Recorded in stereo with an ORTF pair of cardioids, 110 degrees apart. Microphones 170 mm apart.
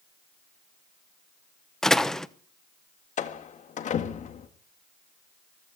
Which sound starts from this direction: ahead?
A door slam, at 1.8 s.